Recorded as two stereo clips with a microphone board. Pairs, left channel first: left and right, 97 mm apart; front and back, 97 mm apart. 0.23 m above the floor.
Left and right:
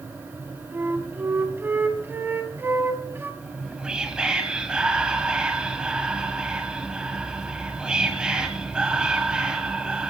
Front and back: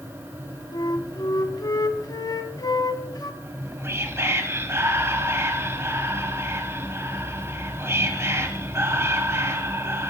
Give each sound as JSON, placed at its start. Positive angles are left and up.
{"t": 0.7, "sound": "a flute", "azimuth_deg": -30, "distance_m": 1.0}
{"t": 3.4, "sound": "whispering", "azimuth_deg": -160, "distance_m": 1.2}